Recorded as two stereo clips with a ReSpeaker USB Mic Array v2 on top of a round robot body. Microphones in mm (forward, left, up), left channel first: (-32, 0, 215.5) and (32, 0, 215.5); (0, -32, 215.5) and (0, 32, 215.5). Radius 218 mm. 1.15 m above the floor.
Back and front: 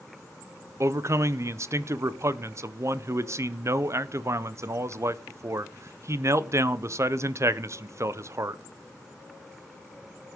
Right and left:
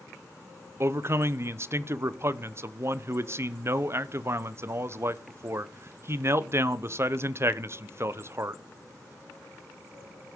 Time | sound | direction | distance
0.8 | a man speaking | 45° left | 0.8 m